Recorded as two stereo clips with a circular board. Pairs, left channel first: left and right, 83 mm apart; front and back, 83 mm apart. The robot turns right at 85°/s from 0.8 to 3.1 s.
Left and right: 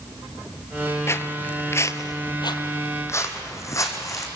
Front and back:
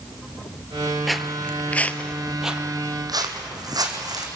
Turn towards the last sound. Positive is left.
turn(degrees=140)